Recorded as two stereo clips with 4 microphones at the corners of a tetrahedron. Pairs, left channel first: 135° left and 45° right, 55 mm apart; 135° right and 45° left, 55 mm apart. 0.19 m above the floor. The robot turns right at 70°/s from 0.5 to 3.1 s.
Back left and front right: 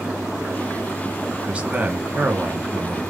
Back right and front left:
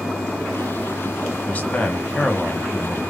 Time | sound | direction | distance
1.5 | a man speaking | 105° right | 1.5 m